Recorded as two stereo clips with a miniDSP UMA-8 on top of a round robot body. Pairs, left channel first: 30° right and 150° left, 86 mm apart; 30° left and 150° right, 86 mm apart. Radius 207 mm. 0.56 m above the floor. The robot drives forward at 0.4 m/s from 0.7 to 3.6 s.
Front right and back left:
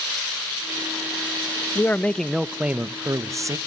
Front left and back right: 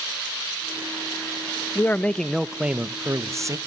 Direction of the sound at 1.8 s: Straight ahead.